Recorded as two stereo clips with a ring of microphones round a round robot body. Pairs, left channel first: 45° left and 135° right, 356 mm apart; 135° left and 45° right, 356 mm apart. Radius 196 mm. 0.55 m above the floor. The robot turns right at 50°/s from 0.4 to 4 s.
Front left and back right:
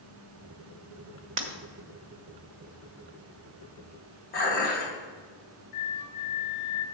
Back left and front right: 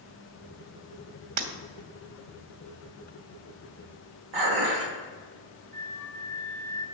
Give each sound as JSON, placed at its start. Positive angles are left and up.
{"t": 1.4, "sound": "breaking glass", "azimuth_deg": -80, "distance_m": 1.0}
{"t": 4.3, "sound": "dishes clattering", "azimuth_deg": -20, "distance_m": 1.9}
{"t": 5.7, "sound": "a flute", "azimuth_deg": 50, "distance_m": 0.8}